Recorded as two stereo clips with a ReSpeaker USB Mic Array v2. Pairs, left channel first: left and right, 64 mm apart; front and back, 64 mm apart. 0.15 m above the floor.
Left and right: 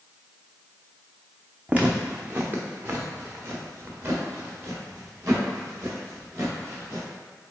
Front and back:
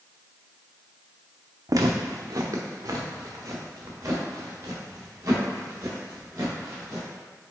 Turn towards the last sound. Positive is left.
turn(degrees=-135)